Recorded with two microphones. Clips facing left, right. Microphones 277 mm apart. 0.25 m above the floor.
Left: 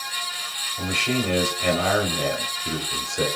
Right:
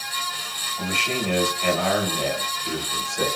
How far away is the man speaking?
About 0.9 m.